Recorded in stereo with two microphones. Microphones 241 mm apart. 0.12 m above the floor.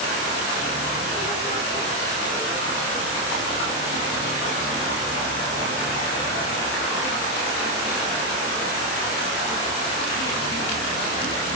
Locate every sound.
Only background noise.